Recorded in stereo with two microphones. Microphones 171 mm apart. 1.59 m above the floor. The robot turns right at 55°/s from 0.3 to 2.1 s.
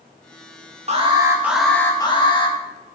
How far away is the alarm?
About 2.5 m.